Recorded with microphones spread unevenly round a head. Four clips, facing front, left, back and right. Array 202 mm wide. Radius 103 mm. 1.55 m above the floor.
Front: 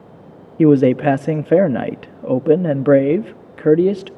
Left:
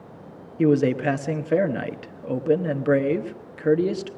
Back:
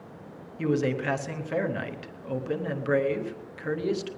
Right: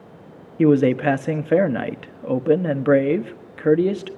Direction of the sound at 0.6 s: 10° right.